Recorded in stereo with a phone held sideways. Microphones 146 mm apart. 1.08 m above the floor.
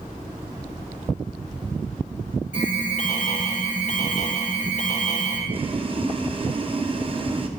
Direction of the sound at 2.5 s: 55° left (ahead or behind).